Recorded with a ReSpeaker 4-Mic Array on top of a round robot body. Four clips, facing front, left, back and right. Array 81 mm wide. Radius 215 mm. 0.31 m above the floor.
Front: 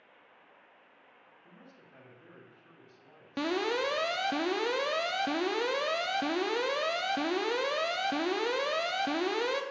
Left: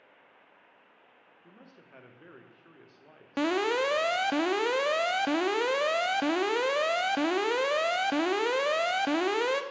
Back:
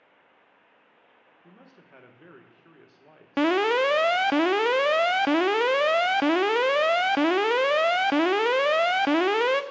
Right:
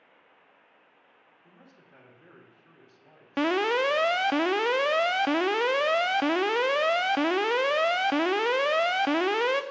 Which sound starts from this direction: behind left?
A man speaking, at 1.4 s.